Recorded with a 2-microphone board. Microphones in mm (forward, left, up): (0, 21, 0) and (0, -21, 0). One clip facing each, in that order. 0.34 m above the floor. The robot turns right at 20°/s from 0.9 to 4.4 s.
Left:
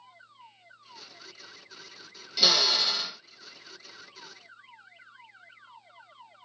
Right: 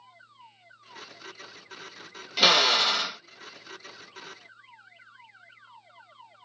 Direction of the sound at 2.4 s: 50° right (ahead or behind).